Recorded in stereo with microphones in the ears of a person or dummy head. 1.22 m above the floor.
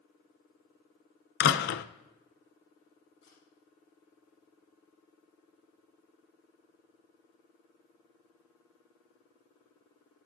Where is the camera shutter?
25° left (ahead or behind), 9.5 m.